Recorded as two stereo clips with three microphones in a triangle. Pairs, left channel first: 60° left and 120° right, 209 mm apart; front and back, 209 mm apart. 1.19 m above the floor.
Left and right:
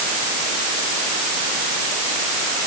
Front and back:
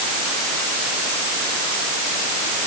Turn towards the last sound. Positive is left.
No sound to turn to.